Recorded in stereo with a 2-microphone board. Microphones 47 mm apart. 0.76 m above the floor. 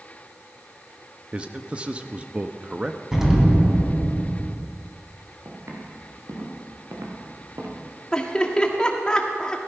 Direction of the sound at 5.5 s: 80° right.